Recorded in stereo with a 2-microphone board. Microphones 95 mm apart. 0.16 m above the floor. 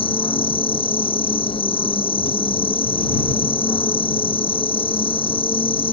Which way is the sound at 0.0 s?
70° left (ahead or behind).